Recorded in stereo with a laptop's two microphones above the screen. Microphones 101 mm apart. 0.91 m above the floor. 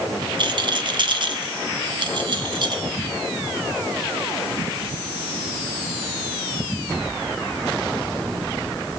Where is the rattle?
50° right (ahead or behind), 1.3 m.